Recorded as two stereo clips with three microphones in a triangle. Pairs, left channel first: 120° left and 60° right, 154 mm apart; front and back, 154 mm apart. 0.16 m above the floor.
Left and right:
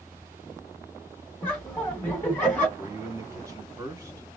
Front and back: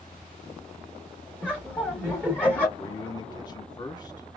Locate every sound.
1.4 s laughter: 60° left, 1.0 m
2.8 s a man speaking: 20° right, 1.2 m